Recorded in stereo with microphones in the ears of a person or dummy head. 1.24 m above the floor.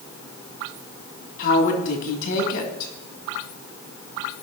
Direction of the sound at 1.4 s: 55° left (ahead or behind).